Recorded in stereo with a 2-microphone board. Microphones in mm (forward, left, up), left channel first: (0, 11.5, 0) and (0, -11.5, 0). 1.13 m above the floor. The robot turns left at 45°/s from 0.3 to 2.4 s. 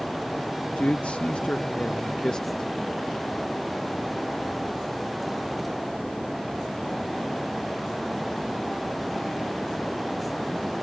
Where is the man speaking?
110° left; by 2.7 s 35° left.